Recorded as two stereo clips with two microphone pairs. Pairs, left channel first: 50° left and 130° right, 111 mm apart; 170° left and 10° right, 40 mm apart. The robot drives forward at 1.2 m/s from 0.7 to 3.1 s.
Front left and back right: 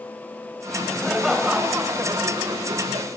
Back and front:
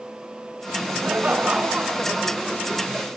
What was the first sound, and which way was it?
Laughter, 35° right.